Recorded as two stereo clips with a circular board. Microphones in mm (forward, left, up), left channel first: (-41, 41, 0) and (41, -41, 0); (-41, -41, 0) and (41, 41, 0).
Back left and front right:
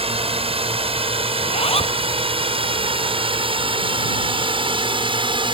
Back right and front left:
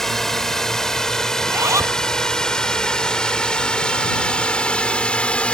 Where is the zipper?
105° left.